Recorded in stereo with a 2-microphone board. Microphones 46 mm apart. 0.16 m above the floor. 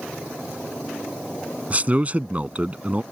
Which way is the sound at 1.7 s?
35° right (ahead or behind).